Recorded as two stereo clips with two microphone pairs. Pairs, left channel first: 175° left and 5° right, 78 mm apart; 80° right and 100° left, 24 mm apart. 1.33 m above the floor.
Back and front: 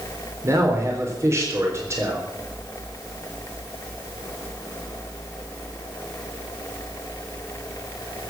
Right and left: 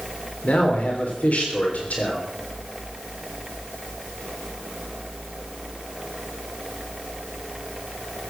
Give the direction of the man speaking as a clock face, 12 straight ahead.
2 o'clock.